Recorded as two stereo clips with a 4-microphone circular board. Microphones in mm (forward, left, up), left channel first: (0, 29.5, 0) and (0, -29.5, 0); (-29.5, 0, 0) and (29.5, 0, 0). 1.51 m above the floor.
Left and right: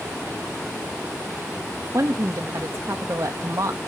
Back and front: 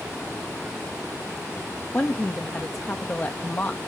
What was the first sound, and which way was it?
A woman speaking, 125° right.